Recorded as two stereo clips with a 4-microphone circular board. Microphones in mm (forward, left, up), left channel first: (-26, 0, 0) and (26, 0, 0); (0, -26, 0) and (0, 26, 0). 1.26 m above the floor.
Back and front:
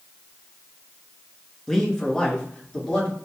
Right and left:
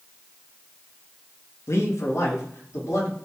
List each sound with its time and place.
1.7 s a man speaking: 100° right, 0.9 m; by 3.1 s 110° right, 1.9 m